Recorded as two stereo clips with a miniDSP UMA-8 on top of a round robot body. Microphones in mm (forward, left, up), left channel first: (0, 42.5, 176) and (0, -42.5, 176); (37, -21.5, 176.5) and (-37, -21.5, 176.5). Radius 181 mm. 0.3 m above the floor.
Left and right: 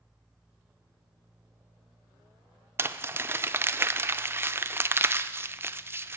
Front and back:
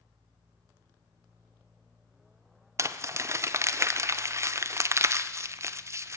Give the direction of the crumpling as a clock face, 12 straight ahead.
5 o'clock.